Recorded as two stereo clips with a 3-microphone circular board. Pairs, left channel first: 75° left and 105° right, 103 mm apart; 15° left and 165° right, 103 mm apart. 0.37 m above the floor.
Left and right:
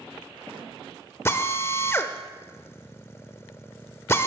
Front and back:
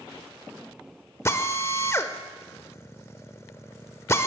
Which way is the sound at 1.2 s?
40° left.